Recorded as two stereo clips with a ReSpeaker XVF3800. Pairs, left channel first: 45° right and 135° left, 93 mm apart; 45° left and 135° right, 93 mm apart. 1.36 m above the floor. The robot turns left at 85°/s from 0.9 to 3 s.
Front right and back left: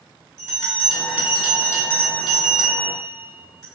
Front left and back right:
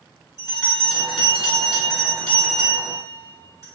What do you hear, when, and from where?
0.4 s a bell: 90° left, 1.7 m; by 3.6 s 90° right, 1.7 m